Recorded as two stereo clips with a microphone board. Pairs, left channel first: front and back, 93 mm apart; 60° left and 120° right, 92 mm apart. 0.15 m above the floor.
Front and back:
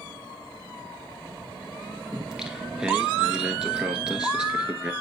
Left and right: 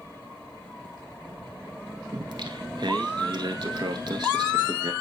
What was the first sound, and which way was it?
Singing, 100° right.